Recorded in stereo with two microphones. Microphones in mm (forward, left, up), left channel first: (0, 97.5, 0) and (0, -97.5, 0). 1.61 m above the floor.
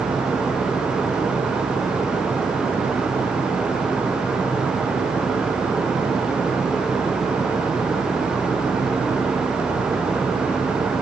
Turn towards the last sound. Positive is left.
No sound to turn to.